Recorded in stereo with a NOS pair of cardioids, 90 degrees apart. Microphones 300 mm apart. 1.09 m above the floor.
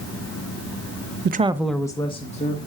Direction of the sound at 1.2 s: 40° right.